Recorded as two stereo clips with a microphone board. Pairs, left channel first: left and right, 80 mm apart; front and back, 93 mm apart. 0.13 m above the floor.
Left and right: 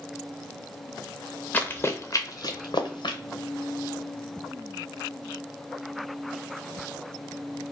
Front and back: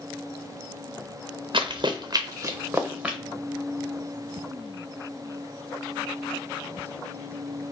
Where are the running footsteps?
160° left, 0.7 m; by 3.2 s 100° left, 0.9 m.